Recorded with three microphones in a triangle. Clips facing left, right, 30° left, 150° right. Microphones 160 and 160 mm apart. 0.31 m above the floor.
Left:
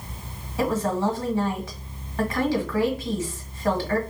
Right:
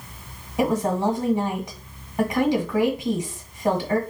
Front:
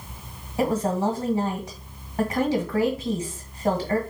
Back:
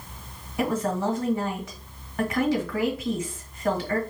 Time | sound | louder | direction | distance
0.6 | a woman speaking | right 2 dB, front 2 dB | 30° right | 1.3 m